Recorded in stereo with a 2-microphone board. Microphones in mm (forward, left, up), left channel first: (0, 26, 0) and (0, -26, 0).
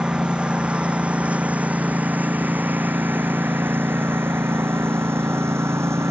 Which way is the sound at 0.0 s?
15° right (ahead or behind).